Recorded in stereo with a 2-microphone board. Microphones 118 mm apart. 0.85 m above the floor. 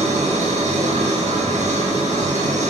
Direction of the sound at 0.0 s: 80° right.